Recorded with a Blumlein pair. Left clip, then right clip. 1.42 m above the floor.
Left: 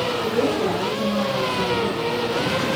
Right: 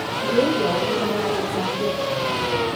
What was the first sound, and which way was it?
A woman speaking, 70° right.